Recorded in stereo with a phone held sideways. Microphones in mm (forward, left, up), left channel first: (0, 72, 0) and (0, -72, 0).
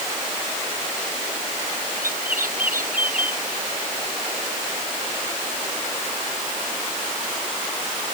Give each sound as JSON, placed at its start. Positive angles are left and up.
{"t": 2.0, "sound": "a bird", "side_deg": -75}